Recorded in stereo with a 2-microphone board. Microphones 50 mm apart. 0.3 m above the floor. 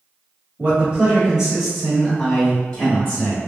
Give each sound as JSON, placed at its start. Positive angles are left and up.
{"t": 0.6, "sound": "a man speaking", "side_deg": -30, "distance_m": 1.6}